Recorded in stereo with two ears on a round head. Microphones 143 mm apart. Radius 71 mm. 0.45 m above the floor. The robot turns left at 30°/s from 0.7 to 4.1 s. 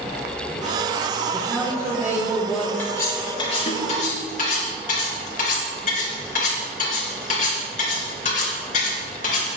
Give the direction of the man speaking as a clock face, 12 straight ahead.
5 o'clock.